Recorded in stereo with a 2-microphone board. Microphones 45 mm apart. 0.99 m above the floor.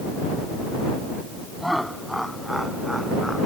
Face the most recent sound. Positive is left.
turn(degrees=0)  # may be behind; listen again after turning